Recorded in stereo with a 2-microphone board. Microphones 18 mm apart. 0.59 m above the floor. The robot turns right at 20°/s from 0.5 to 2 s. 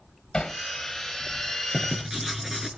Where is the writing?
25° right (ahead or behind), 6 m; by 2.7 s 20° right (ahead or behind), 6 m.